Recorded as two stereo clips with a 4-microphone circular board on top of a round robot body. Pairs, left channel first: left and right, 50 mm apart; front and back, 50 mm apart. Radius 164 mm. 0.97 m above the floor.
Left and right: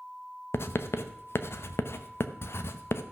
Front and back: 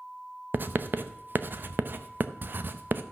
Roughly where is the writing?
Behind left.